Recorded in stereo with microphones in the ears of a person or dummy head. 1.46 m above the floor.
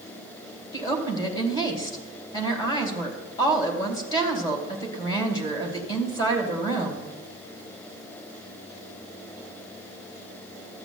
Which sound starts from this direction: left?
A woman speaking, at 0.7 s.